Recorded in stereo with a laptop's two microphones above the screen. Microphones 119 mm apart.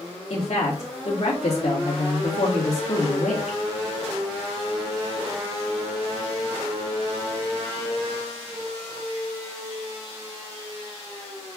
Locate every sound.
0.3 s a woman speaking: 65° left (ahead or behind), 1.9 m